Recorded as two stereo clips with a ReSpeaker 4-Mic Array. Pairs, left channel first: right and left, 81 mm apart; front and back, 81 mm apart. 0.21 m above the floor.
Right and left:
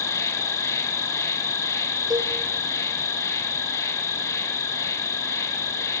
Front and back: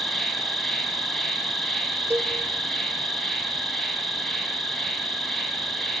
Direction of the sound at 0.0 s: 90° right.